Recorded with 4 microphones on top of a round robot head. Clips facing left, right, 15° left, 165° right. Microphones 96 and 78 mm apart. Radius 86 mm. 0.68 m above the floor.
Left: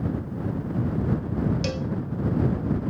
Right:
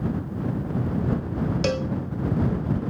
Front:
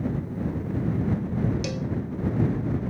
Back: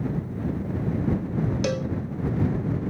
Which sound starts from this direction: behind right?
A cowbell, at 1.6 s.